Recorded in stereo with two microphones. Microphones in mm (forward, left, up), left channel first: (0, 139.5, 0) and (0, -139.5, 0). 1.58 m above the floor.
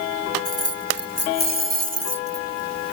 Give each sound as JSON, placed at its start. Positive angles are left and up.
{"t": 0.5, "sound": "keys jangling", "side_deg": 55}